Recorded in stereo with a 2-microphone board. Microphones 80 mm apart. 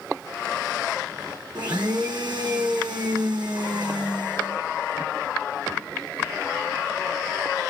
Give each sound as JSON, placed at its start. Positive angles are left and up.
{"t": 1.6, "sound": "a blender", "side_deg": -65, "distance_m": 1.1}